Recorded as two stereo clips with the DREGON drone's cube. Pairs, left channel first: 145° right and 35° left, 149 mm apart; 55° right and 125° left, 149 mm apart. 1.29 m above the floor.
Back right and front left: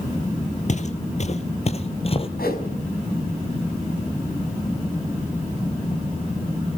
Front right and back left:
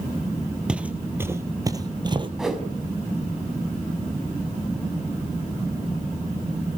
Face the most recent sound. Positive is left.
turn(degrees=-150)